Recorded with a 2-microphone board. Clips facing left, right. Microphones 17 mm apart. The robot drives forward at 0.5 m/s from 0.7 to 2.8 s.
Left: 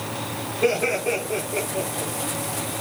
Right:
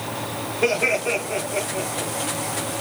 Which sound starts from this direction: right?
Laughter, at 0.6 s.